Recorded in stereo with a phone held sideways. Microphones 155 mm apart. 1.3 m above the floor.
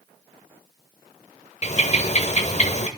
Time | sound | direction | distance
1.6 | a bird | 45° left (ahead or behind) | 1.3 m